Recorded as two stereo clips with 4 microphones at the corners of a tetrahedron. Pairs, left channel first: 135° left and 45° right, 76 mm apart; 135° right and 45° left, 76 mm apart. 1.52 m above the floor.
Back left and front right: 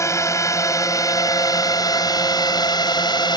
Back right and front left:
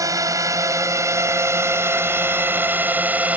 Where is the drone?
85° left; by 3.4 s 115° left.